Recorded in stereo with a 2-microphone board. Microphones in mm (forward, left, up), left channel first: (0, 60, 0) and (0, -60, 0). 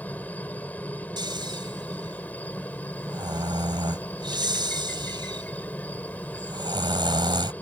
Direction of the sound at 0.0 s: 15° left (ahead or behind).